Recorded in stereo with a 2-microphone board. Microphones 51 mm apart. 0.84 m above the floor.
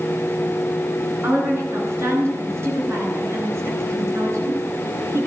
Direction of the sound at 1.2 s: 50° right (ahead or behind).